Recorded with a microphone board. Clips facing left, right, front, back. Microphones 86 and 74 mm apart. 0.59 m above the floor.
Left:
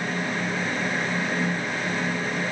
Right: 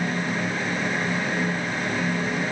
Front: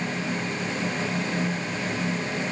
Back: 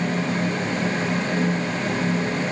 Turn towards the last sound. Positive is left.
No sound to turn to.